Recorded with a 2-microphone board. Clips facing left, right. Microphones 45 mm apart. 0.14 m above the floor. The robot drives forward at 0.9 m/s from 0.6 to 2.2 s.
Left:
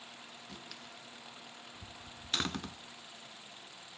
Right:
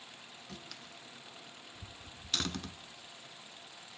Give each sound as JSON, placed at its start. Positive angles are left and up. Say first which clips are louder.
{"t": 0.5, "sound": "a door slam", "louder": "right 2 dB", "side_deg": 10, "distance_m": 1.9}